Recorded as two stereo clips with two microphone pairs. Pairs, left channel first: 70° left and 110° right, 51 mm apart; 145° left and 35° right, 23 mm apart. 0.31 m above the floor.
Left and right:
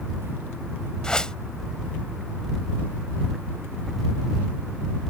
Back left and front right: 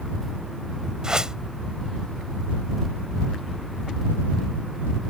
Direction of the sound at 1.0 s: 5° left.